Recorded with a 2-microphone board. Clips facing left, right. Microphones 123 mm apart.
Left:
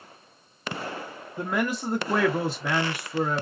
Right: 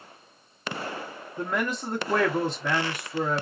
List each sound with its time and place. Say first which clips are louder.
1.4 s a man speaking: left 2 dB; 5° left (ahead or behind), 0.7 m